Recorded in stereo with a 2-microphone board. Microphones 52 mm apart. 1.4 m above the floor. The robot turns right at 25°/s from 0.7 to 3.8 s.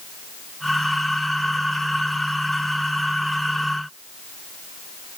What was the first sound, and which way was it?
Only background noise.